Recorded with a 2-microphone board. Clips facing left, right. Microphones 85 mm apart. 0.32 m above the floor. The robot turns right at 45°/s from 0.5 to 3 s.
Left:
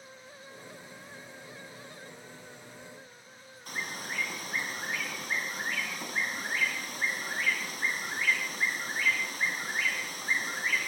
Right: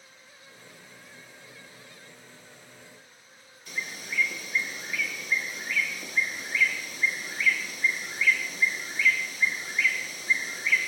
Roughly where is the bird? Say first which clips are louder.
Right 1 dB; left.